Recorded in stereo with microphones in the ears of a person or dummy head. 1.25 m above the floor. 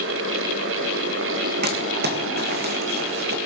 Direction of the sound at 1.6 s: 55° right (ahead or behind).